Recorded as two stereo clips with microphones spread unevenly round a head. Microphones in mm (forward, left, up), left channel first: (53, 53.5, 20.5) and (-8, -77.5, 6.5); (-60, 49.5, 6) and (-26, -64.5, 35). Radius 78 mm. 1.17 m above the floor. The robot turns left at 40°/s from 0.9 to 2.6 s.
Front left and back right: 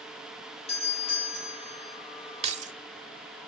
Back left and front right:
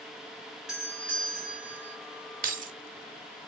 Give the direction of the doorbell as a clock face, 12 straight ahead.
11 o'clock.